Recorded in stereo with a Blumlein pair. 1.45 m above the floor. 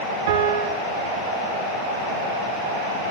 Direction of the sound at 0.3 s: 55° right.